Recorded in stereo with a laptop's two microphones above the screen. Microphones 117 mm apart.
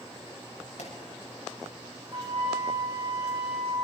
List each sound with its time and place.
0.8 s a pop: 80° left, 6.5 m
2.1 s a flute: 45° right (ahead or behind), 5.5 m